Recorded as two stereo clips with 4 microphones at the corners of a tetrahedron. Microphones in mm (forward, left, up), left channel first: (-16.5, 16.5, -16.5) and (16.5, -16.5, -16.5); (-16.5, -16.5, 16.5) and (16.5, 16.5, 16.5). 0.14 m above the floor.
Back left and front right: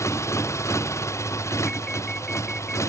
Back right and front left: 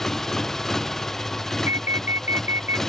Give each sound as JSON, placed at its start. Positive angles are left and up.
{"t": 0.0, "sound": "a motorcycle", "azimuth_deg": 145}
{"t": 1.7, "sound": "an alarm", "azimuth_deg": 65}